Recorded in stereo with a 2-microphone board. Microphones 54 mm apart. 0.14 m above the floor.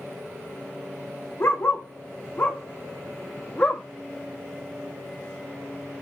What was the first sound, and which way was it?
A dog barking, 45° left (ahead or behind).